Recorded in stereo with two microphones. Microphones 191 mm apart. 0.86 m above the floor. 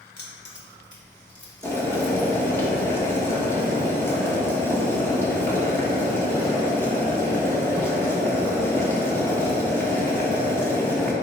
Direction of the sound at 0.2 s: 60° left (ahead or behind).